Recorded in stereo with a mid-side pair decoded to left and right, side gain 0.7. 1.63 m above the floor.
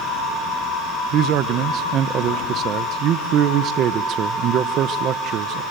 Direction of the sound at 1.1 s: 50° right.